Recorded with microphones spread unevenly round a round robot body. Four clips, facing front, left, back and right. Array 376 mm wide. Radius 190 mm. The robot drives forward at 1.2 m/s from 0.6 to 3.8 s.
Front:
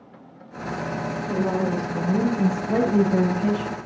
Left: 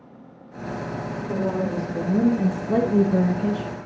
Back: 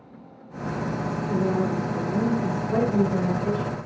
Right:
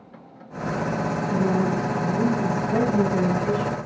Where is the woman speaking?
35° left, 8 m; by 3.7 s 50° left, 6 m.